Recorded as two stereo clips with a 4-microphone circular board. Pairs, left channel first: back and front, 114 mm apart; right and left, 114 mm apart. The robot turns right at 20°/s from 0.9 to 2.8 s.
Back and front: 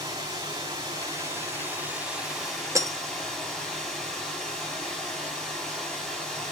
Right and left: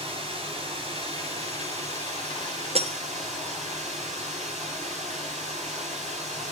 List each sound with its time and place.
0.0 s running water: 60° left, 3.5 m; by 6.5 s 95° left, 3.5 m
2.8 s breaking glass: 60° left, 0.6 m; by 3.0 s 65° left, 0.6 m